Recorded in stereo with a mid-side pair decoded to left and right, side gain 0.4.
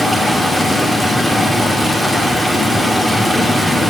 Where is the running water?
20° right, 2 m.